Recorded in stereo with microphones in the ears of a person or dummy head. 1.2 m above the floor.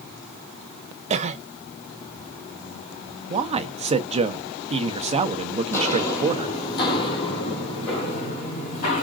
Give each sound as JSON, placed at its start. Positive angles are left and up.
{"t": 1.1, "sound": "a cough", "side_deg": -35, "distance_m": 0.6}
{"t": 3.3, "sound": "a man speaking", "side_deg": -35, "distance_m": 0.8}
{"t": 5.7, "sound": "footsteps", "side_deg": 15, "distance_m": 1.6}